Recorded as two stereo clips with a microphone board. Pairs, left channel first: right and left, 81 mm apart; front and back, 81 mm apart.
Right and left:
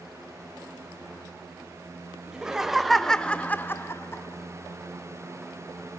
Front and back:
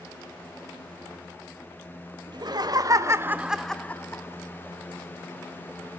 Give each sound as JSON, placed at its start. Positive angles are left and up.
{"t": 2.3, "sound": "laughter", "azimuth_deg": 170, "distance_m": 1.6}